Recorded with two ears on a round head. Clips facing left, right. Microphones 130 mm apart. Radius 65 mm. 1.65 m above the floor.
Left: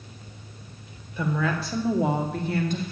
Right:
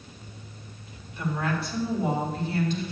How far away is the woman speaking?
About 1.5 m.